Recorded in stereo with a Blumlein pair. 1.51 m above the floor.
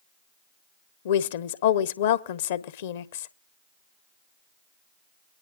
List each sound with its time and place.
1.1 s a woman speaking: 55° left, 1.1 m